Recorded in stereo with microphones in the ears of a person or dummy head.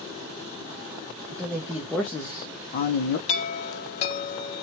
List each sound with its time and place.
1.3 s a man speaking: 25° right (ahead or behind), 0.8 m; by 3.2 s 50° left (ahead or behind), 0.8 m
3.3 s a chime: 40° left (ahead or behind), 0.9 m